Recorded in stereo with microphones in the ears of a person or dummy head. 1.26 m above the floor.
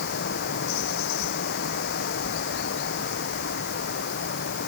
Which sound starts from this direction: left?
Running water, at 0.0 s.